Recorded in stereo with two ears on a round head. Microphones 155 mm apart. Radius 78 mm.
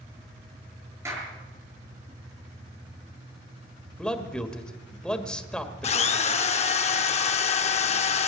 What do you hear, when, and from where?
1.1 s a clap: 15° right (ahead or behind), 6.5 m
4.0 s a man speaking: 5° left (ahead or behind), 1.5 m
5.8 s a drill: 40° left (ahead or behind), 0.7 m